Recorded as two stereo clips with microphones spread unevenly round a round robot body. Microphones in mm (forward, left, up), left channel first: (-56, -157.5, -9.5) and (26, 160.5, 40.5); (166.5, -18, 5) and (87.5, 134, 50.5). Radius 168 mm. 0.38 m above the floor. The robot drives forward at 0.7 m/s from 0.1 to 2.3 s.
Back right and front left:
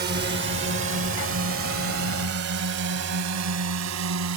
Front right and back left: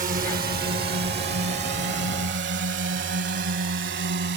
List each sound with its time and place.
0.0 s a drone: 125° left; by 4.4 s 115° left